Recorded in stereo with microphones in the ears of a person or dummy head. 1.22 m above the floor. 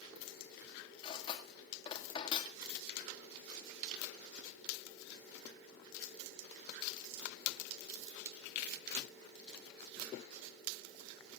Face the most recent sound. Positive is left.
turn(degrees=30)  # may be behind; listen again after turning